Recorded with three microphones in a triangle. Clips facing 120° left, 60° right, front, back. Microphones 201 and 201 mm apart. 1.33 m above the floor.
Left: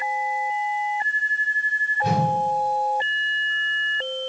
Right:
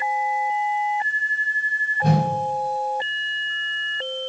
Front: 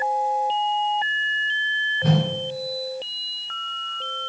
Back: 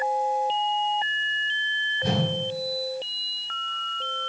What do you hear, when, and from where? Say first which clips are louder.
2.0 s a whoosh: right 3 dB, front 4 dB; 25° right, 4 m